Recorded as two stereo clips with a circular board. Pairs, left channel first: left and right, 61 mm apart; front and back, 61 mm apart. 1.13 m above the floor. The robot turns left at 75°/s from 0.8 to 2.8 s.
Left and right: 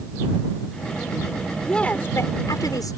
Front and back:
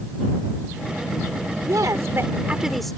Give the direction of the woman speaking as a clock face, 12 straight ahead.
6 o'clock.